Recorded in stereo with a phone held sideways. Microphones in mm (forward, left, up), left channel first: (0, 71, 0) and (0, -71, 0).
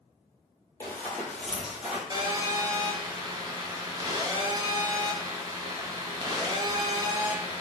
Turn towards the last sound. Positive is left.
turn(degrees=-30)  # may be behind; listen again after turning